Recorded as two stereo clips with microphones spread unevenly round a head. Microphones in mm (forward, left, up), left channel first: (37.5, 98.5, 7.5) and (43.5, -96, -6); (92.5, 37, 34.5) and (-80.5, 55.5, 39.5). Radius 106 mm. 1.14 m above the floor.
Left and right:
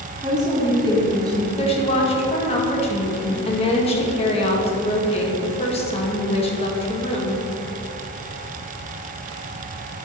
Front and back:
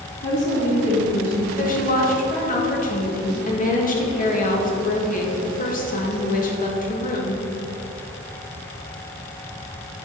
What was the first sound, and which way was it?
A woman speaking, 20° right.